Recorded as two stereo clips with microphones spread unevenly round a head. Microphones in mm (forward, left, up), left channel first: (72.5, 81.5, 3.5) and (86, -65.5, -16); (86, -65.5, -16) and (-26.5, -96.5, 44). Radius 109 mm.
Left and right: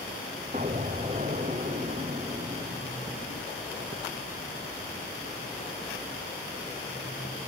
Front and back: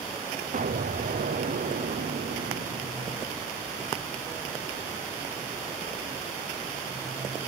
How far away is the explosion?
About 0.9 m.